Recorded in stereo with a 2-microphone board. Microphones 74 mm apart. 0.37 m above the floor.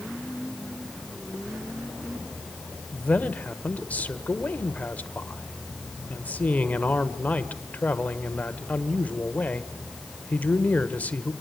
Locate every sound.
2.9 s a man speaking: 20° left (ahead or behind), 1.4 m